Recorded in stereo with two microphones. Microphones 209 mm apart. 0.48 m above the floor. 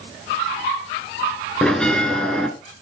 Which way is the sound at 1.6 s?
5° left (ahead or behind).